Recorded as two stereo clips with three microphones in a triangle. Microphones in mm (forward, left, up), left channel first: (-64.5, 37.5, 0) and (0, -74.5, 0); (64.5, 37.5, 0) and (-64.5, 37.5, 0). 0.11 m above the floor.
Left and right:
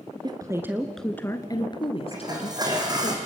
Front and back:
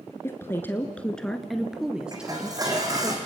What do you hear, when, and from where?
0.2 s a woman speaking: 55° right, 1.5 m; by 3.1 s 100° left, 3 m
2.1 s dishes clattering: 120° right, 4 m